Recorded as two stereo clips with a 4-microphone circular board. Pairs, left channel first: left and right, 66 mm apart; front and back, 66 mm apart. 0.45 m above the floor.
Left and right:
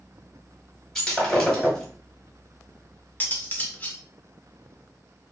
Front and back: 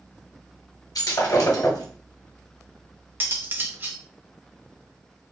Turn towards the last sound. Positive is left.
turn(degrees=135)